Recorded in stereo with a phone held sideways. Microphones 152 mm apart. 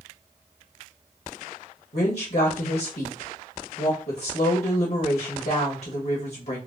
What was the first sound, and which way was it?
A woman speaking, 80° left.